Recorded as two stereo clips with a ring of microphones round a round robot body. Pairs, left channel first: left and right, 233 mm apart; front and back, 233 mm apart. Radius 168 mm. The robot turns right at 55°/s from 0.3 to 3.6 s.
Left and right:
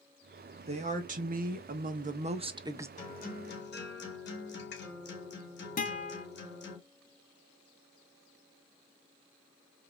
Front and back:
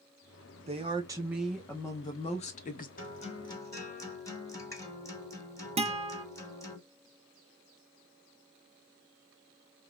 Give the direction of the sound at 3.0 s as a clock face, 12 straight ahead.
11 o'clock.